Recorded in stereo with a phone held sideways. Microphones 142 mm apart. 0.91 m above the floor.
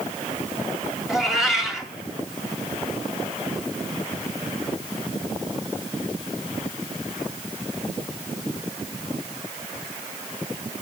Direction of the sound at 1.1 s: 5° right (ahead or behind).